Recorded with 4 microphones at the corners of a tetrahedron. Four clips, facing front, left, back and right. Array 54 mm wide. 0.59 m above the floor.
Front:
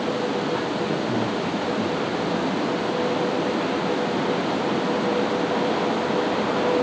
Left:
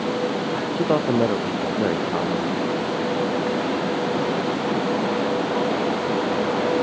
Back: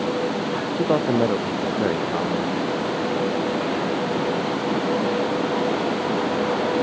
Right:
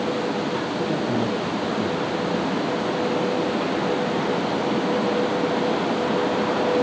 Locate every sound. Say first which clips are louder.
0.8 s a man speaking: left 7 dB, back 4 dB; 135° left